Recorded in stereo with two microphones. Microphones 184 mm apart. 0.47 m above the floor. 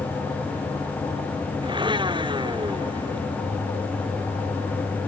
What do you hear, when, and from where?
1.6 s a blender: 25° right (ahead or behind)